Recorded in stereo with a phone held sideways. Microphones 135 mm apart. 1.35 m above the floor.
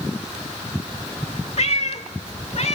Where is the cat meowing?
55° left (ahead or behind), 1.4 m.